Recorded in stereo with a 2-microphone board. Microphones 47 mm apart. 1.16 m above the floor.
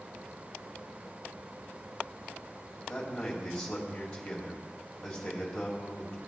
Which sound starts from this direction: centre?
A man speaking, at 2.9 s.